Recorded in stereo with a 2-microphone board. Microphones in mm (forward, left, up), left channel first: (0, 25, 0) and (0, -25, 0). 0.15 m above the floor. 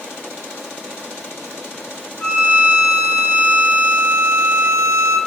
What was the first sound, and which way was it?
A violin, 25° left (ahead or behind).